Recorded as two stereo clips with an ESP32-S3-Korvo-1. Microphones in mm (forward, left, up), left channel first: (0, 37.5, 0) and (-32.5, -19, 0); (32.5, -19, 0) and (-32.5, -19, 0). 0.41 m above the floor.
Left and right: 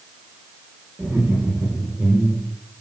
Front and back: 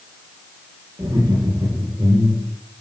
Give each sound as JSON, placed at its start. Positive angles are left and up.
{"t": 1.0, "sound": "laughter", "azimuth_deg": -175, "distance_m": 9.0}